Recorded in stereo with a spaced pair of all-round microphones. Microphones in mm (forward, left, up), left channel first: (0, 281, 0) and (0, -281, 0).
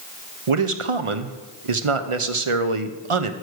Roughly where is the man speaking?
Right.